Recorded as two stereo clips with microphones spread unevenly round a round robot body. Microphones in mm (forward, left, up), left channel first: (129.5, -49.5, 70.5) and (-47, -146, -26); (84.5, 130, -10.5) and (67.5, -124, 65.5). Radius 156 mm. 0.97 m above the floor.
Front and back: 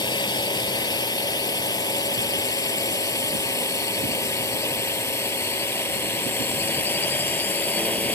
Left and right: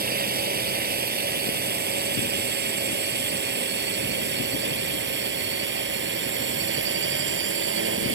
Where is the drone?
40° right; by 8.2 s 55° right.